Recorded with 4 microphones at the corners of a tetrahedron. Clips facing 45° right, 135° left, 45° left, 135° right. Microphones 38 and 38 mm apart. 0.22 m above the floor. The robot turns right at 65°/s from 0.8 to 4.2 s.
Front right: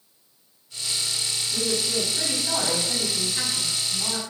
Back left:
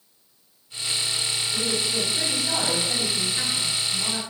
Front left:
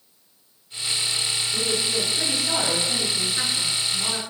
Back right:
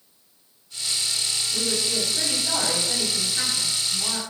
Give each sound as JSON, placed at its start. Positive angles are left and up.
{"t": 1.5, "sound": "a woman speaking", "azimuth_deg": 175, "distance_m": 1.3}